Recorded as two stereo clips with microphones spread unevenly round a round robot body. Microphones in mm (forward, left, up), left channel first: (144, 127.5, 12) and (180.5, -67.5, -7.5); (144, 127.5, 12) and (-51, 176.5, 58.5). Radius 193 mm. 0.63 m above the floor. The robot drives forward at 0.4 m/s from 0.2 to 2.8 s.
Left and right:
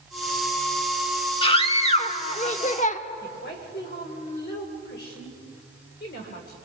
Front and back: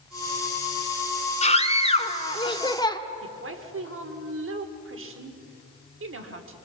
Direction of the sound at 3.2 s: 155° left.